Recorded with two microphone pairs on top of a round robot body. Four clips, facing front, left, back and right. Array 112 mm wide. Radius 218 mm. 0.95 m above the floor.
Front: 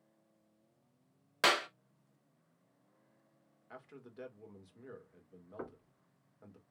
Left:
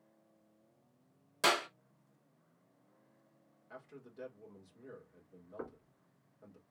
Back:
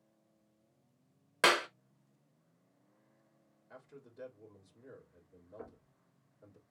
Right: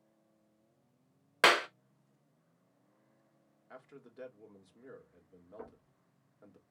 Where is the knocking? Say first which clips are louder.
Left 4 dB, front 5 dB; 25° left, 2.5 m.